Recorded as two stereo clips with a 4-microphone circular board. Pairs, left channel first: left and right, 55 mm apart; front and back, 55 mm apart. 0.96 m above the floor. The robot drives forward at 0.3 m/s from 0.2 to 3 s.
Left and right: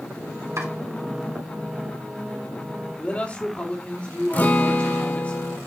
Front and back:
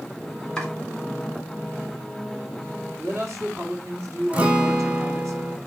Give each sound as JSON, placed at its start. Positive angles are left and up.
{"t": 0.6, "sound": "chopping", "azimuth_deg": -75, "distance_m": 2.5}
{"t": 3.0, "sound": "a man speaking", "azimuth_deg": 155, "distance_m": 2.5}
{"t": 4.3, "sound": "a guitar", "azimuth_deg": 125, "distance_m": 1.1}